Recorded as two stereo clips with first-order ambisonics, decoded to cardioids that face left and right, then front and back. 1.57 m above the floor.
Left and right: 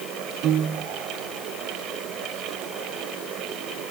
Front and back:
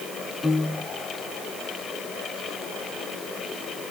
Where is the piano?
80° right, 0.8 m.